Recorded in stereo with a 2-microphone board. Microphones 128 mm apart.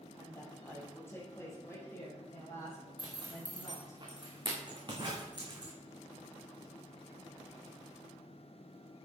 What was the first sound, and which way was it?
A woman speaking, 15° left (ahead or behind).